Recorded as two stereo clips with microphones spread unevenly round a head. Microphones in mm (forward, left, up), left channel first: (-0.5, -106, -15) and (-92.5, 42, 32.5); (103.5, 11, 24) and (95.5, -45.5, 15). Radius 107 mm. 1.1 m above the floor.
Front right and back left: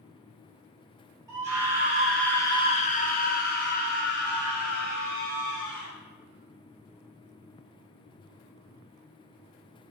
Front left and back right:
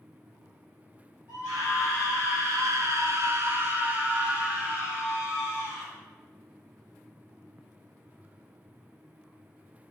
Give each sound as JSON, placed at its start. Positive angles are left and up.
{"t": 1.3, "sound": "a scream", "azimuth_deg": -165, "distance_m": 1.5}